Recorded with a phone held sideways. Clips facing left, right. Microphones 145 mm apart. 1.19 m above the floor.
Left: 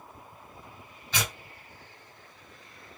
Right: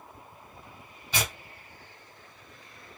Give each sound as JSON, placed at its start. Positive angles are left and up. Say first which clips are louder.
{"t": 1.1, "sound": "tearing paper", "louder": "right 1 dB", "side_deg": -10, "distance_m": 1.4}